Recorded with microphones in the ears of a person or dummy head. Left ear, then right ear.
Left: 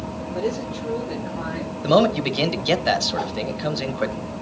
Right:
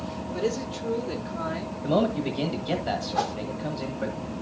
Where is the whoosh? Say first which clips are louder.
Even; 60° right (ahead or behind), 0.7 m.